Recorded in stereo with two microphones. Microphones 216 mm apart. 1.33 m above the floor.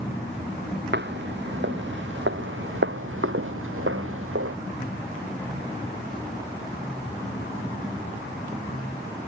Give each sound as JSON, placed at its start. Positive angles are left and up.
{"t": 0.9, "sound": "footsteps", "side_deg": -55}